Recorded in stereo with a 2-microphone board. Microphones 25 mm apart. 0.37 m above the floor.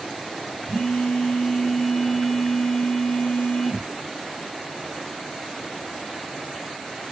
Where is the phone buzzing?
10° right (ahead or behind), 1.6 m.